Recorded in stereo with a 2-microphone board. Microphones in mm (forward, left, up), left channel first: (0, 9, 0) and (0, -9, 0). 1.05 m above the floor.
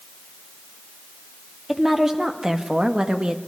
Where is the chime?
I don't hear a chime.